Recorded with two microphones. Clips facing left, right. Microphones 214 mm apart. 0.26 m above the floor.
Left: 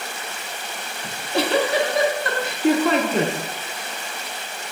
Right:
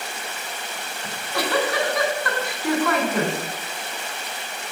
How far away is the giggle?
About 0.5 m.